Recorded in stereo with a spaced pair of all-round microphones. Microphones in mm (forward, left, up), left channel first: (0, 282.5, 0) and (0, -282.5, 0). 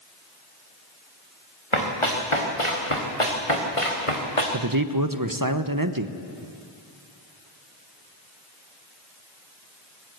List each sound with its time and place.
1.7 s running footsteps: 55° left (ahead or behind), 4.5 m; by 4.4 s 70° left (ahead or behind), 3.5 m
4.5 s a man speaking: 35° right (ahead or behind), 0.9 m